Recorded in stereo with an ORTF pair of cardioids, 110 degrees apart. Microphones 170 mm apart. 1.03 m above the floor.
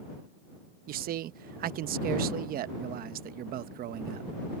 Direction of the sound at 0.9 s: 60° right.